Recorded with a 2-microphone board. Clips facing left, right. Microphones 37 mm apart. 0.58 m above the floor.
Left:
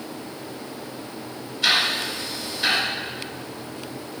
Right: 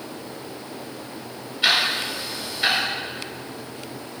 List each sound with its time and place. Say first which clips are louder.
1.6 s ticking: even; 25° right (ahead or behind), 2.5 m